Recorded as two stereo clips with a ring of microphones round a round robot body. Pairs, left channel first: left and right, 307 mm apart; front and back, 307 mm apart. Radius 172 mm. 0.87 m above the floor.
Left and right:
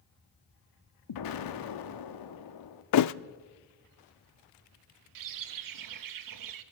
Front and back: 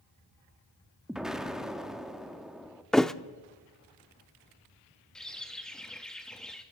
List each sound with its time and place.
1.1 s an explosion: 90° left, 1.7 m
2.9 s a thud: 90° left, 0.5 m
5.2 s a bird: 90° right, 1.2 m